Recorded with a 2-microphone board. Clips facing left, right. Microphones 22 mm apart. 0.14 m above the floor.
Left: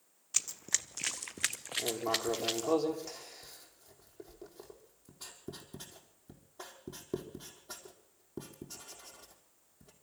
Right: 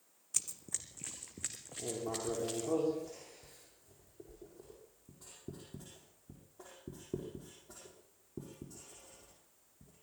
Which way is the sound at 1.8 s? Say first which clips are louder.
Left 5 dB; 70° left (ahead or behind).